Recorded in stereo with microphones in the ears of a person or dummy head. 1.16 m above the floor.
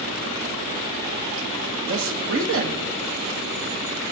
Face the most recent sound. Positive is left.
turn(degrees=-60)  # may be behind; listen again after turning